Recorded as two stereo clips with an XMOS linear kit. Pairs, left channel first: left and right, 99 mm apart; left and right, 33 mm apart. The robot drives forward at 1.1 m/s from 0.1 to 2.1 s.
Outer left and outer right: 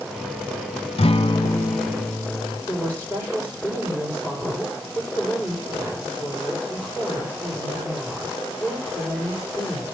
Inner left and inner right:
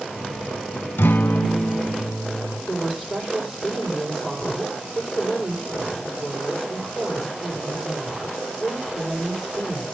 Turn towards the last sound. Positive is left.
turn(degrees=20)  # may be behind; listen again after turning